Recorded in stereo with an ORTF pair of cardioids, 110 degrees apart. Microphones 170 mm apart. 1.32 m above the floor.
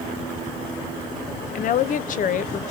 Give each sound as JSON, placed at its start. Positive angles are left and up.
{"t": 1.6, "sound": "a woman speaking", "azimuth_deg": 55, "distance_m": 0.6}